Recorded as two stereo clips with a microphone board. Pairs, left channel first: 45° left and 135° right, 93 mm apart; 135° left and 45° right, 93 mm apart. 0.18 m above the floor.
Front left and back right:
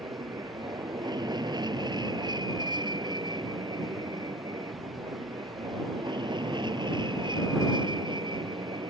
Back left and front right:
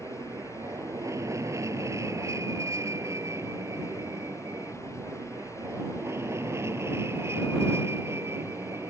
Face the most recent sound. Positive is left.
turn(degrees=-110)